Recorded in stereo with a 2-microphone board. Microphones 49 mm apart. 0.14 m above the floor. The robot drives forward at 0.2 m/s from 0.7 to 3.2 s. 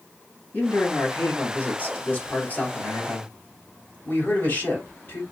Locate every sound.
0.5 s a man speaking: 45° left (ahead or behind), 2.5 m; by 5.2 s 40° left (ahead or behind), 2.5 m